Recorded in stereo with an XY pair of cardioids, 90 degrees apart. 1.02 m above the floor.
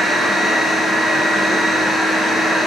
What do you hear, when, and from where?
0.0 s a machine running: 60° right, 1.3 m